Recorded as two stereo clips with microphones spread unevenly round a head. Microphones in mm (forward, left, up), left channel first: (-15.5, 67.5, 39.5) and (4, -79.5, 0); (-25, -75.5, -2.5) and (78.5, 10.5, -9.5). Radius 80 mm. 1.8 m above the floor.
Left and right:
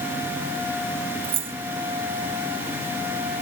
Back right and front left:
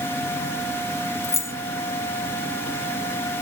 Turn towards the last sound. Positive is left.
turn(degrees=-125)